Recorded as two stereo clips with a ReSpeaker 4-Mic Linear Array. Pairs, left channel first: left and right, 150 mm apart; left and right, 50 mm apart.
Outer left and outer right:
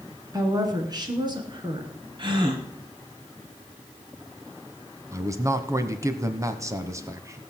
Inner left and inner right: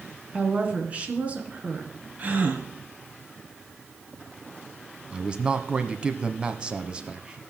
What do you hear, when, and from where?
0.3 s a woman speaking: 25° right (ahead or behind), 2.5 m; by 1.9 s 30° right (ahead or behind), 3.5 m
2.2 s a gasp: 30° right (ahead or behind), 2 m
5.1 s a man speaking: 20° right (ahead or behind), 1.1 m